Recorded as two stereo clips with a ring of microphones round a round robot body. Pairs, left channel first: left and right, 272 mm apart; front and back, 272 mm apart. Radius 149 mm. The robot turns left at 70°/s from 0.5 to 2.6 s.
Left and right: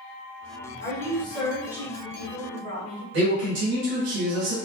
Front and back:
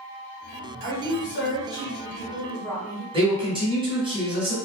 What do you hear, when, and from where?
0.8 s a woman speaking: 50° left, 1.1 m; by 3.0 s 75° right, 1.1 m
3.1 s a man speaking: 115° right, 1.2 m